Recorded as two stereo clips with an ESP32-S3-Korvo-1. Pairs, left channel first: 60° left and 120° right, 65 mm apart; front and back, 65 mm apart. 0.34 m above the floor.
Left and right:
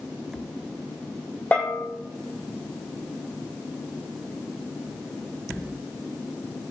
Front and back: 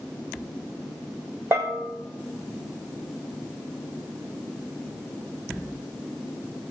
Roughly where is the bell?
Behind left.